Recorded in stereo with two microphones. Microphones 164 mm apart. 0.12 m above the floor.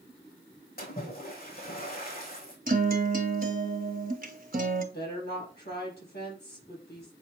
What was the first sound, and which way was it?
A splash, 60° left (ahead or behind).